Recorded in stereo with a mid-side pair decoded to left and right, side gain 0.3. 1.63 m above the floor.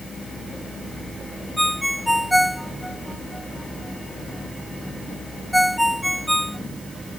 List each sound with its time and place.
1.6 s a ringtone: straight ahead